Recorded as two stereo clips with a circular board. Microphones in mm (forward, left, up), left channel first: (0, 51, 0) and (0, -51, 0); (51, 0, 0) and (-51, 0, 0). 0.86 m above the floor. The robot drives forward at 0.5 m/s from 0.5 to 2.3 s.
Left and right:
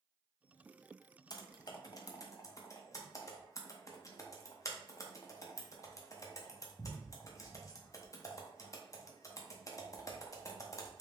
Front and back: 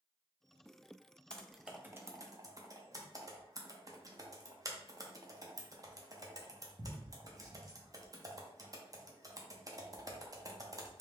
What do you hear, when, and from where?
1.3 s typing on a keyboard: 75° left, 0.5 m; by 11.0 s 135° left, 0.7 m